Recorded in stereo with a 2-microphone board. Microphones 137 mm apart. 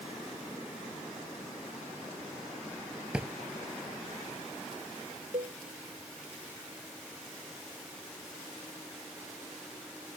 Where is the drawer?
5° right (ahead or behind).